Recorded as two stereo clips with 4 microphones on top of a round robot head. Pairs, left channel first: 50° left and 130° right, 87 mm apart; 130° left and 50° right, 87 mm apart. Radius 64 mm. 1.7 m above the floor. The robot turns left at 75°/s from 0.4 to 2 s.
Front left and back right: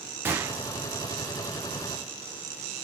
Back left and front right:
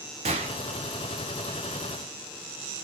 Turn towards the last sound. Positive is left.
turn(degrees=180)